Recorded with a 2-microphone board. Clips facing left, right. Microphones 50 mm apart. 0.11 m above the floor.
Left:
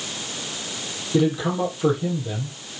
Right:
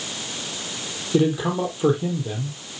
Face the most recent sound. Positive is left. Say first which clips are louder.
# even
turn(degrees=-20)  # may be behind; listen again after turning